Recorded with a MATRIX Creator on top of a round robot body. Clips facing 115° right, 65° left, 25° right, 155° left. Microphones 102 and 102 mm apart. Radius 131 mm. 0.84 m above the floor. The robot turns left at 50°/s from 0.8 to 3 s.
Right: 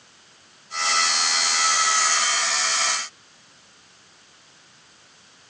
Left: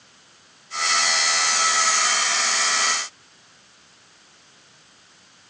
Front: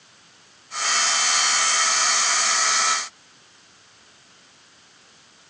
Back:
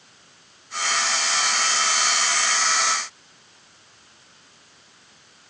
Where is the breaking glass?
No breaking glass in this recording.